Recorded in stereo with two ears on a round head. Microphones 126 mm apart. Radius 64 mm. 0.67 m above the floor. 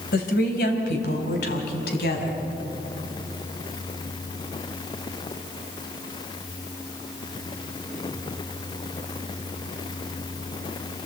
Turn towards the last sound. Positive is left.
turn(degrees=85)